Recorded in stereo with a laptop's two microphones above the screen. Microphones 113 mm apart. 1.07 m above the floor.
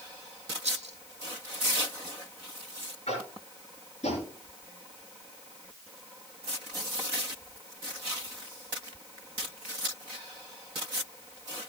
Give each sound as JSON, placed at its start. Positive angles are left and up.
{"t": 0.6, "sound": "a rattle", "side_deg": -75, "distance_m": 2.5}
{"t": 3.1, "sound": "tapping", "side_deg": 85, "distance_m": 6.5}